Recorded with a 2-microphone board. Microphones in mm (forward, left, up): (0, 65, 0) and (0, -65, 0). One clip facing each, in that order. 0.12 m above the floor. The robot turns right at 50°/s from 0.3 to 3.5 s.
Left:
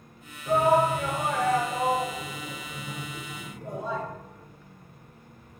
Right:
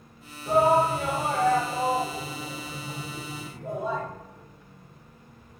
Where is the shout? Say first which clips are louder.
Right 1 dB; 10° right (ahead or behind), 1.3 m; by 4.0 s 5° right (ahead or behind), 1.3 m.